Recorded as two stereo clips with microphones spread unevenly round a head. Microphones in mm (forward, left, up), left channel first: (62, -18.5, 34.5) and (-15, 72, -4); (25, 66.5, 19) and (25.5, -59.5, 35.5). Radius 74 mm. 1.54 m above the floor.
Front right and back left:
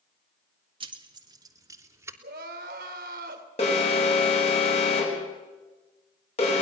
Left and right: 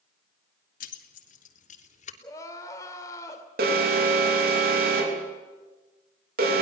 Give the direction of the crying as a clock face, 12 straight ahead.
7 o'clock.